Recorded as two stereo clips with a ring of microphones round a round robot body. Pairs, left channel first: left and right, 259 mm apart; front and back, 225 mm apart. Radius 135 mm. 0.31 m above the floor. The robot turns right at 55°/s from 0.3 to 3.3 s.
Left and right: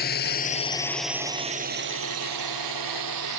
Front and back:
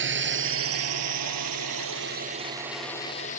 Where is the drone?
145° left; by 3.4 s 65° right.